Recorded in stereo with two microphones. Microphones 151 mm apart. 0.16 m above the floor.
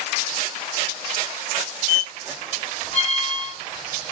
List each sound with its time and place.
1.9 s a squeak: 25° right (ahead or behind), 0.7 m